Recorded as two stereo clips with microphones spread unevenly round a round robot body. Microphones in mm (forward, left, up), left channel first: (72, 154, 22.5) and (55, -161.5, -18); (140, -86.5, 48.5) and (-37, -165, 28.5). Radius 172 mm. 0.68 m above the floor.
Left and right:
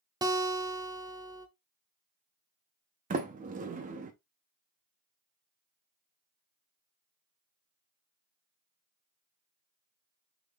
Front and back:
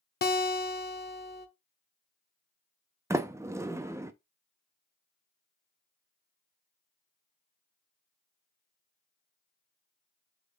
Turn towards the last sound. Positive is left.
turn(degrees=-100)